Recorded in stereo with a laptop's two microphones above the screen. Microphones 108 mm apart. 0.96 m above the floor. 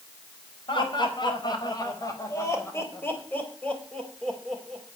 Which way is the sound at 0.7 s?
50° left (ahead or behind).